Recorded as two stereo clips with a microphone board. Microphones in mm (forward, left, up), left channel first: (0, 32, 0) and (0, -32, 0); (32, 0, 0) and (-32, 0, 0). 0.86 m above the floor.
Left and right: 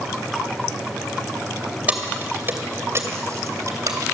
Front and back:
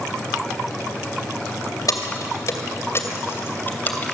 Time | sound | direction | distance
1.9 | keys jangling | 25° right | 2.5 m